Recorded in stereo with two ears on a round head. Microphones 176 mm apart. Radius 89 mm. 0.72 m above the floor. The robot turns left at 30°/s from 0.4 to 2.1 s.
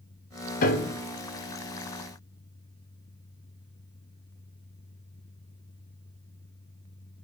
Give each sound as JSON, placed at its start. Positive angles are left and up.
{"t": 0.6, "sound": "a piano", "side_deg": 45, "distance_m": 0.6}